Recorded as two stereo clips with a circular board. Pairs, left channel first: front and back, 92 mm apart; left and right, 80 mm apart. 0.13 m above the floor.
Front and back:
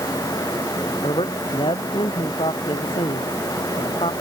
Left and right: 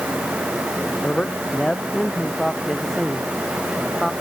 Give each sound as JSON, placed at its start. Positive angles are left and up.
{"t": 1.0, "sound": "a man speaking", "azimuth_deg": 15}